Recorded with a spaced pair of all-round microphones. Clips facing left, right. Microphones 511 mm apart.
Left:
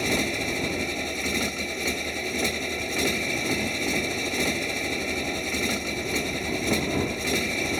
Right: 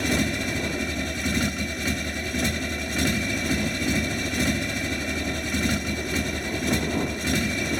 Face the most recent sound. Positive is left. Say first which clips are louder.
# right 2 dB
turn(degrees=-35)  # may be behind; listen again after turning